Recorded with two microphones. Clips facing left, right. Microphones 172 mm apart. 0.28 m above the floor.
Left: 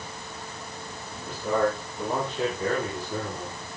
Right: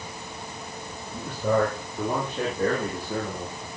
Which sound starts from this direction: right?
A man speaking, at 1.1 s.